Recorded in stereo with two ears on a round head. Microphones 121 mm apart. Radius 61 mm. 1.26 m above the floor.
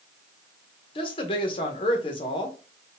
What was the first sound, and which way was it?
A woman speaking, 40° left (ahead or behind).